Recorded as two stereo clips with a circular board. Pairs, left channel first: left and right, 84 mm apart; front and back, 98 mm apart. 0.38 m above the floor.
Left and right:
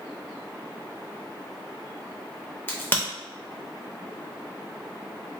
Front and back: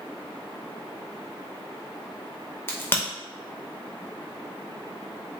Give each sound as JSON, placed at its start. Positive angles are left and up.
{"t": 2.7, "sound": "a crack", "azimuth_deg": 45, "distance_m": 0.8}